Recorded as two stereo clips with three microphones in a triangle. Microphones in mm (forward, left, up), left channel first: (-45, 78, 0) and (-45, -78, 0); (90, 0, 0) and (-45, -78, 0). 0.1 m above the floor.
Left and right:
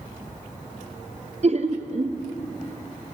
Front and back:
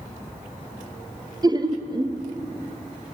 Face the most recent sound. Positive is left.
turn(degrees=-100)